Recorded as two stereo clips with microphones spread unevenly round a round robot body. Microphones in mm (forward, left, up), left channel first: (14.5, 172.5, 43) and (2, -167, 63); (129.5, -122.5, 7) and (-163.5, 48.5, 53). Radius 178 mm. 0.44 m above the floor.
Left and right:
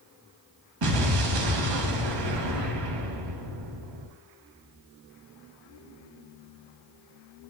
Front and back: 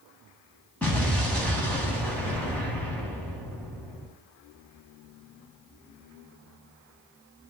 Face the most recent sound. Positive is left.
turn(degrees=-115)